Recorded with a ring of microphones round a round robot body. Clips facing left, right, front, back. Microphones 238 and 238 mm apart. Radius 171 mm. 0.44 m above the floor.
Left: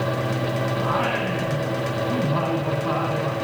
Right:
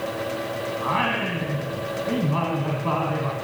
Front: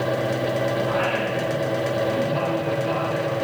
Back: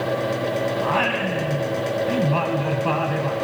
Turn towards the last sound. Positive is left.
turn(degrees=-160)